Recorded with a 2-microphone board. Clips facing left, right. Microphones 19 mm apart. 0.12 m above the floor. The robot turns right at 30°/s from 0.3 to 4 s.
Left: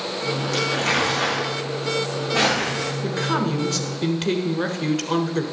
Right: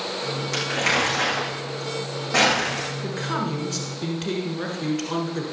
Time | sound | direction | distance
0.5 | crumpling | 5° right (ahead or behind) | 8 m
3.0 | a man speaking | 10° left (ahead or behind) | 1.3 m